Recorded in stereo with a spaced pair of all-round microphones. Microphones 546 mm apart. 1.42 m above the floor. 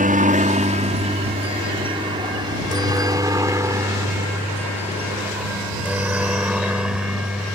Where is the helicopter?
15° right (ahead or behind); by 7.6 s centre (ahead or behind).